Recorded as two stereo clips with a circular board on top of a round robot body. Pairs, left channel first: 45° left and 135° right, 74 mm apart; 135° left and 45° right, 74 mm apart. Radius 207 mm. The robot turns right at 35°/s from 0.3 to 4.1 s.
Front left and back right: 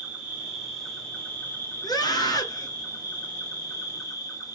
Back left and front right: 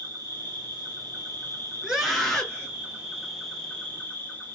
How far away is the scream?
About 1.7 m.